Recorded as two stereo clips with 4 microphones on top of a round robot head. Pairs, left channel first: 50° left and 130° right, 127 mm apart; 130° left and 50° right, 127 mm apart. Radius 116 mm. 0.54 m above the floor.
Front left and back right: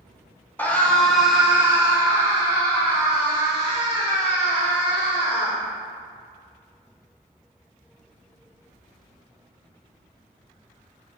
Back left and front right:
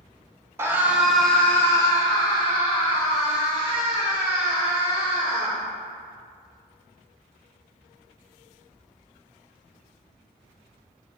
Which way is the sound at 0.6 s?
10° right.